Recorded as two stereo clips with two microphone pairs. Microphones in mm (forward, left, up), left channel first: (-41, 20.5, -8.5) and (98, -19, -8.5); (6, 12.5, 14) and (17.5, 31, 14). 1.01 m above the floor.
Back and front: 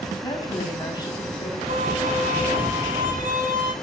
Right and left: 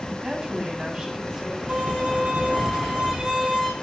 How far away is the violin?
About 6 m.